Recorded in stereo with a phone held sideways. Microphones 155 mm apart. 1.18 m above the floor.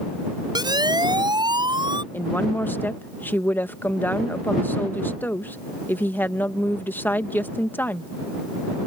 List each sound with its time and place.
0.6 s a siren: 25° right (ahead or behind); by 2.0 s 30° right (ahead or behind)
2.1 s a woman speaking: 15° left (ahead or behind)